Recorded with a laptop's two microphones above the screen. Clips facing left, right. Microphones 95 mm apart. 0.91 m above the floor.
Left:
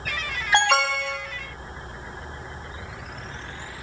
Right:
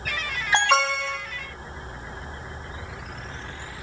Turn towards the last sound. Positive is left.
turn(degrees=15)  # may be behind; listen again after turning